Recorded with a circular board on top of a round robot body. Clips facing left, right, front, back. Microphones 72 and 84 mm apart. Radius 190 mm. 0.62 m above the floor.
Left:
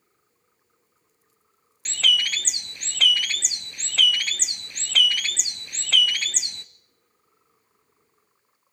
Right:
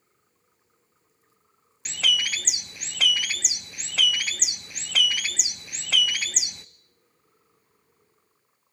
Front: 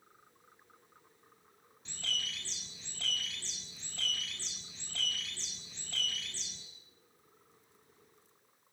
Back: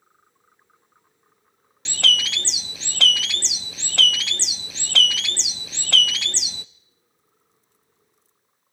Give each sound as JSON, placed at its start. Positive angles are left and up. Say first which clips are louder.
{"t": 1.9, "sound": "a bird", "louder": "left 2 dB, back 17 dB", "azimuth_deg": -175, "distance_m": 0.5}